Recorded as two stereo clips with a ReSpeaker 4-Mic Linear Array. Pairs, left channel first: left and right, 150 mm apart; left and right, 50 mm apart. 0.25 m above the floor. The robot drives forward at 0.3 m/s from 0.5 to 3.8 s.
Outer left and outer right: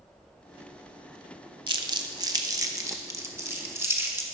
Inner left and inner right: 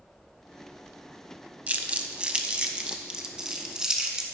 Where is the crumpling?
30° right (ahead or behind), 0.6 m; by 4.2 s 15° right (ahead or behind), 1.1 m.